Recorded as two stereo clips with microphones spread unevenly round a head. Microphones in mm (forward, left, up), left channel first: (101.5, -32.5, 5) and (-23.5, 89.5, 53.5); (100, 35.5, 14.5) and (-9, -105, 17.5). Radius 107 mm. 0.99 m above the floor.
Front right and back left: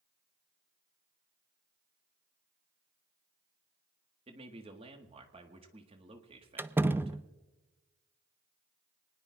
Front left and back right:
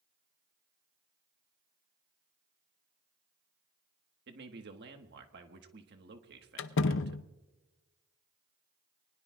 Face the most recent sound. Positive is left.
turn(degrees=50)